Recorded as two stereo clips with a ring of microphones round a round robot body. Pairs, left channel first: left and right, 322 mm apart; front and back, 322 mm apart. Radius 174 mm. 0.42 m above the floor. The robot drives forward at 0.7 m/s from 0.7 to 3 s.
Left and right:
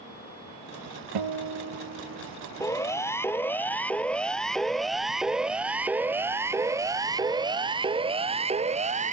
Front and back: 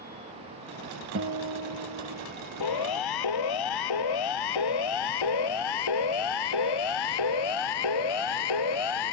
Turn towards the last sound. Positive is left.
turn(degrees=-20)